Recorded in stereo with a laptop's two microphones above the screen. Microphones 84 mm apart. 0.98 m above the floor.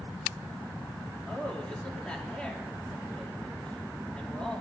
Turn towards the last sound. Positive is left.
turn(degrees=10)  # may be behind; listen again after turning